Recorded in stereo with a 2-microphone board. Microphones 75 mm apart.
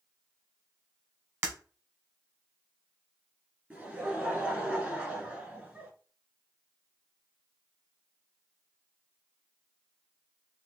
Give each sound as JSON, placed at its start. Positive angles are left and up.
{"t": 1.4, "sound": "breaking glass", "side_deg": -35, "distance_m": 1.2}
{"t": 3.7, "sound": "laughter", "side_deg": -20, "distance_m": 1.8}